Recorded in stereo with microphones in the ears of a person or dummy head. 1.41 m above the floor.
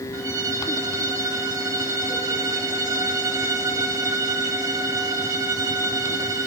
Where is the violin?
10° right (ahead or behind), 0.9 m.